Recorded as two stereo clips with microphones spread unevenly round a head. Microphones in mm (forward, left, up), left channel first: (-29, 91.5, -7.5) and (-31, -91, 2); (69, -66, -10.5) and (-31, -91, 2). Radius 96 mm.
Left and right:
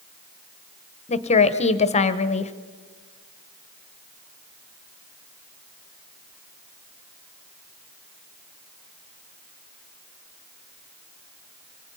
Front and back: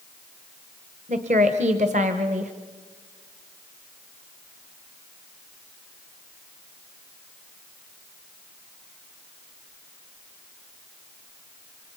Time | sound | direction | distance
1.1 | a woman speaking | 145° left | 1.1 m